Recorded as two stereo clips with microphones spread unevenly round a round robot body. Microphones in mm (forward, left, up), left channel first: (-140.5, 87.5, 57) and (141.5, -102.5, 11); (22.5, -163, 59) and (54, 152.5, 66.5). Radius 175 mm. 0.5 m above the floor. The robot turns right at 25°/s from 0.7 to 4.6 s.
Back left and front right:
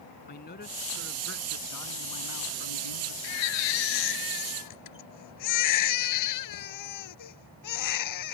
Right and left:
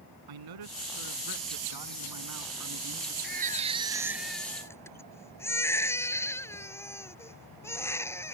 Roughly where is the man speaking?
Left.